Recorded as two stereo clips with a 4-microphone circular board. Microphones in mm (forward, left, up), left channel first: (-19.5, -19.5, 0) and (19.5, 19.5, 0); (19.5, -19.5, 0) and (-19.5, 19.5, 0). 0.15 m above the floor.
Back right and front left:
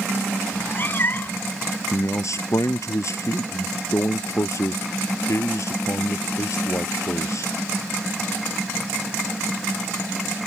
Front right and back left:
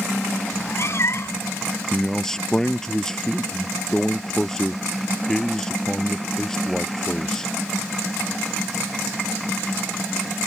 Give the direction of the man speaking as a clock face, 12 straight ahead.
4 o'clock.